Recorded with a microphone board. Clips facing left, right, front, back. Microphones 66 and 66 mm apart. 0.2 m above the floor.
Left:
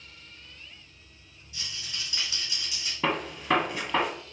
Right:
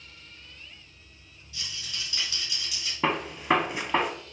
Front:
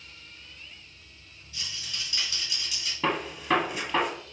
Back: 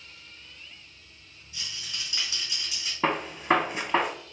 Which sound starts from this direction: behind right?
A gunshot, at 3.0 s.